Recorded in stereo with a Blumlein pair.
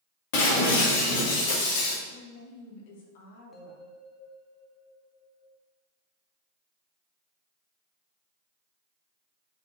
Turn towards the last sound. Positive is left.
turn(degrees=5)